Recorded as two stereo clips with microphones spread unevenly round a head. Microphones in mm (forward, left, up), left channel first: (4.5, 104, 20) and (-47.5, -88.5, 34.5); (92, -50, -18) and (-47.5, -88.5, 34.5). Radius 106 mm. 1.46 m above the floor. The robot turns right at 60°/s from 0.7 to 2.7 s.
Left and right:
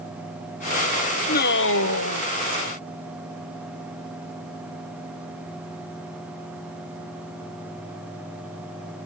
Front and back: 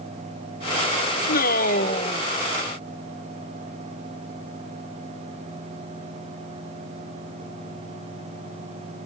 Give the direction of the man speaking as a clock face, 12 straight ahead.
11 o'clock.